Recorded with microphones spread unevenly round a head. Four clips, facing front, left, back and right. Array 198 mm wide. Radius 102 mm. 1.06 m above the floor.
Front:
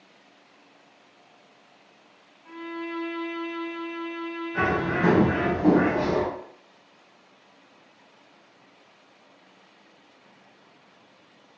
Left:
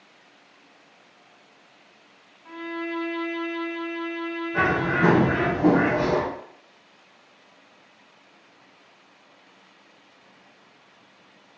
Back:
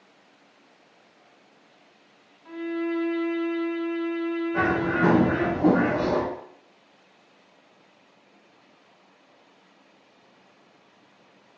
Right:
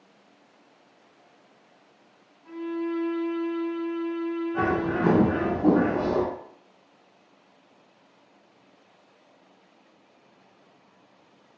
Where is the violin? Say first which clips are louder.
Right 2 dB, back 6 dB; 110° left, 1.6 m.